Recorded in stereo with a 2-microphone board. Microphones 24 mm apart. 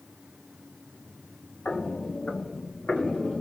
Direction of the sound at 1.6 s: 55° left (ahead or behind).